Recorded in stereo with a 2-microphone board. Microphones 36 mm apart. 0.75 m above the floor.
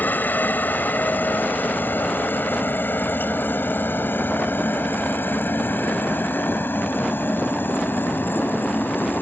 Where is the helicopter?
60° left (ahead or behind); by 9.2 s 75° left (ahead or behind).